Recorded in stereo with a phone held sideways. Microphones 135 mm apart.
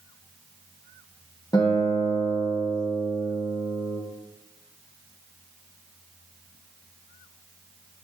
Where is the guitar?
25° left (ahead or behind), 1.4 m.